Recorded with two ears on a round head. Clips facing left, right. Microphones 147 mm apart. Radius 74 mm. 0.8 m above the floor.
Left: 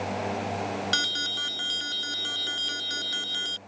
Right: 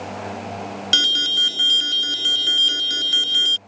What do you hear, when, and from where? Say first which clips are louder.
0.9 s an alarm: right 4 dB; 30° right (ahead or behind)